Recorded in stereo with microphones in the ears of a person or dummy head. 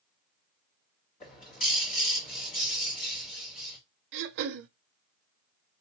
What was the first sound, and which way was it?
A bird, 40° left (ahead or behind).